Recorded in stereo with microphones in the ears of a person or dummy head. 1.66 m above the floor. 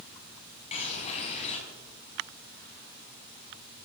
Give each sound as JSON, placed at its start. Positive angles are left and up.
{"t": 0.7, "sound": "a bird", "side_deg": 35, "distance_m": 5.0}